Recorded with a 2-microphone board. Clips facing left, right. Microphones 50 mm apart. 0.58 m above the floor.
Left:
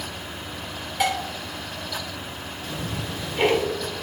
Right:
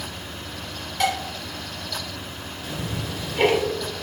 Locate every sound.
1.0 s dishes clattering: 10° left (ahead or behind), 1.4 m
2.6 s ticking: centre (ahead or behind), 1.2 m